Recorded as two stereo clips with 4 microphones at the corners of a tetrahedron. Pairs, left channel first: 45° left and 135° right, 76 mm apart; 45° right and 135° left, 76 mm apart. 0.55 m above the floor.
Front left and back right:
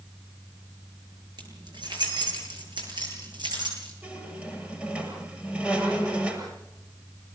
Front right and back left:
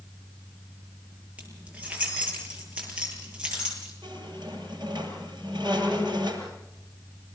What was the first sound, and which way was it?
Keys jangling, 150° right.